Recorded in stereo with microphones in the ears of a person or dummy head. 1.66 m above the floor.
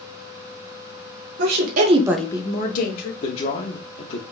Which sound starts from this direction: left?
A man speaking, at 3.2 s.